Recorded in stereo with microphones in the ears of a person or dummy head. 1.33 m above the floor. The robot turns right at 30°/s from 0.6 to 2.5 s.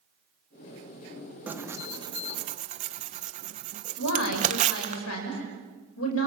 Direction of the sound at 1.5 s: 5° right (ahead or behind).